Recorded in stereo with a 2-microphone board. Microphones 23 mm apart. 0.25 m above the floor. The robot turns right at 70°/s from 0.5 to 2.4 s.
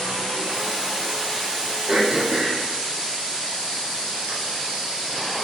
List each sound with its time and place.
1.9 s throat clearing: 50° right (ahead or behind), 3.5 m; by 4.3 s 75° right (ahead or behind), 3.5 m